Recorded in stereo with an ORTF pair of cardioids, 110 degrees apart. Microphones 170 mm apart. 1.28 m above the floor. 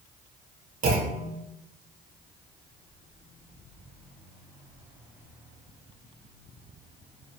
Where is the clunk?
60° right, 0.6 m.